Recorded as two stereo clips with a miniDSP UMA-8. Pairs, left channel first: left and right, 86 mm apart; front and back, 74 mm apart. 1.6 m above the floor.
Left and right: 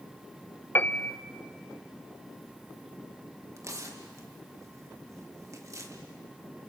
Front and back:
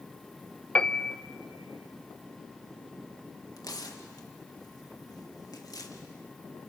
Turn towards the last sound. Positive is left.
turn(degrees=-35)